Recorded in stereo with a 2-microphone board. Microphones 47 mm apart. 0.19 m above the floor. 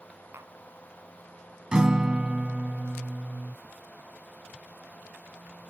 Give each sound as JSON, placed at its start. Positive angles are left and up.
{"t": 0.3, "sound": "tapping", "side_deg": -60}
{"t": 1.7, "sound": "a guitar", "side_deg": -20}